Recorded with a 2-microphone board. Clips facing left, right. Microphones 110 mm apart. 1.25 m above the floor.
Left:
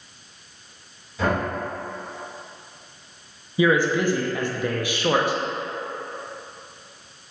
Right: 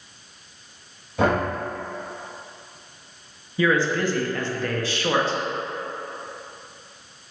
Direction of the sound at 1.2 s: 75° right (ahead or behind).